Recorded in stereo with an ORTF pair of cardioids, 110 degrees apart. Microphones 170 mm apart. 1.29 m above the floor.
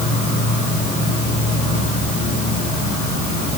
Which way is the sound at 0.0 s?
40° left.